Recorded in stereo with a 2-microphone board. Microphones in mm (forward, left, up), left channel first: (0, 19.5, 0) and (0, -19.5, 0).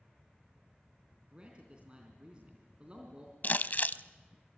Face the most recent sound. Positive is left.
turn(degrees=50)  # may be behind; listen again after turning